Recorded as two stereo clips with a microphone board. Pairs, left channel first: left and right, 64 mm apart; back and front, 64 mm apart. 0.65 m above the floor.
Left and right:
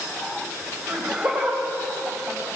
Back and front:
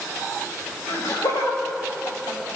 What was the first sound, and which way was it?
Laughter, 165° right.